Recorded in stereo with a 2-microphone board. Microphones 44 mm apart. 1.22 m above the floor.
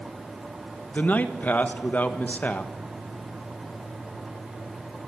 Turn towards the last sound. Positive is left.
turn(degrees=45)  # may be behind; listen again after turning